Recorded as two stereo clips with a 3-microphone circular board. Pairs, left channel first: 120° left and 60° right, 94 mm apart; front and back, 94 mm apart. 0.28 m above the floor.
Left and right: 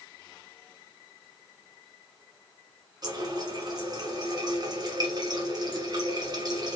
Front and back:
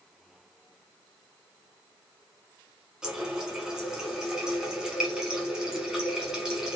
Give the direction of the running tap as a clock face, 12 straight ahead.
3 o'clock.